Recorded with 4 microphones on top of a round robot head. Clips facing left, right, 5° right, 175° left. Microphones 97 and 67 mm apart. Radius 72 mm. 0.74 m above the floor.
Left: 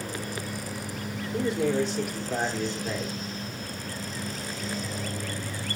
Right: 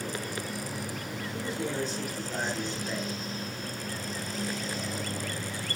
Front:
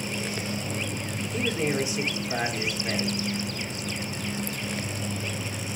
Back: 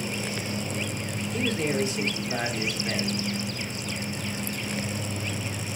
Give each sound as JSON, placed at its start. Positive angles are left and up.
{"t": 1.3, "sound": "a man speaking", "azimuth_deg": 70, "distance_m": 2.0}